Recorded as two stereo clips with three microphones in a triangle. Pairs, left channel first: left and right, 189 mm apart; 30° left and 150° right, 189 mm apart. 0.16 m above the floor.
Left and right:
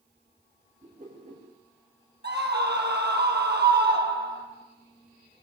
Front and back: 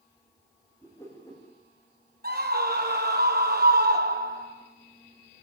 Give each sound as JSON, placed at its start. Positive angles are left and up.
{"t": 0.8, "sound": "a whoosh", "azimuth_deg": -40, "distance_m": 8.5}
{"t": 2.2, "sound": "a scream", "azimuth_deg": -115, "distance_m": 4.5}